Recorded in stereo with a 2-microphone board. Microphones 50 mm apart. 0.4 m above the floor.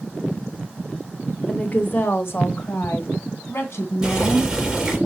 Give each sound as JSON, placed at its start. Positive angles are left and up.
{"t": 1.5, "sound": "a woman speaking", "side_deg": 25, "distance_m": 1.0}
{"t": 4.0, "sound": "boiling", "side_deg": -15, "distance_m": 4.0}